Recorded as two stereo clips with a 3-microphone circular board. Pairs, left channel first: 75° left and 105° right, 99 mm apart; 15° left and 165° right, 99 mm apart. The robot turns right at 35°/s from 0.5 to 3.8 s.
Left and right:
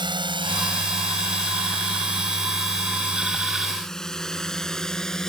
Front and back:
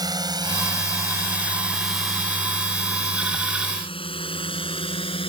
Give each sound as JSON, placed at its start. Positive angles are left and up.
{"t": 0.0, "sound": "a drone", "azimuth_deg": -125}